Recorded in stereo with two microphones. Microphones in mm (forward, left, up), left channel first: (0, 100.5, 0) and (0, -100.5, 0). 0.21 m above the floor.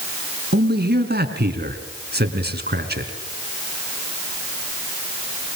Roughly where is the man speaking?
Right.